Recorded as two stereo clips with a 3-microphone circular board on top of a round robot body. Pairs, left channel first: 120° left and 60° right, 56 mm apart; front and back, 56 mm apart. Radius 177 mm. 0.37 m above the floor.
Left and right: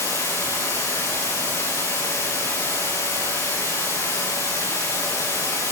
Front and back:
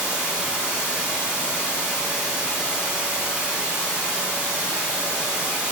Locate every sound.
0.0 s running water: 105° left, 8.5 m